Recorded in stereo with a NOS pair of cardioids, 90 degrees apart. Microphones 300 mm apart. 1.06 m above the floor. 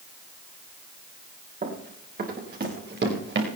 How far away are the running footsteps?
About 5.5 m.